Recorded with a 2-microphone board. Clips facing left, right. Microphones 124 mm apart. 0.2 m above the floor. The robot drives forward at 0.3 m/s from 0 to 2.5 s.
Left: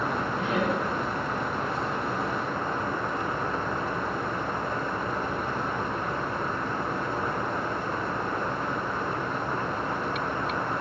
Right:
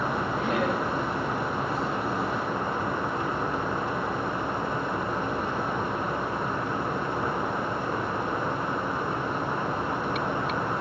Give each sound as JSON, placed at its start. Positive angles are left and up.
{"t": 0.4, "sound": "laughter", "side_deg": -60, "distance_m": 6.0}